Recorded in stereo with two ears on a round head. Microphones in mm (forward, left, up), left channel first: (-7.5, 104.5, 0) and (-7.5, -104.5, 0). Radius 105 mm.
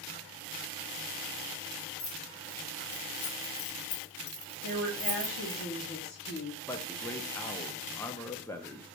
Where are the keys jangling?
50° left (ahead or behind), 2.0 m; by 5.6 s 15° right (ahead or behind), 1.2 m.